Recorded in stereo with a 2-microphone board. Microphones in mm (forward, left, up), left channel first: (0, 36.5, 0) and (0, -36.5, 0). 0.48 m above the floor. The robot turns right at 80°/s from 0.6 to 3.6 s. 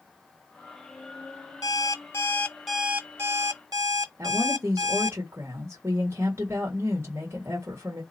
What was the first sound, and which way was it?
An alarm clock, 100° left.